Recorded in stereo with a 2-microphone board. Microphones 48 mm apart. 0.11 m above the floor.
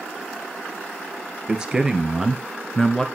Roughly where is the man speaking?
Centre.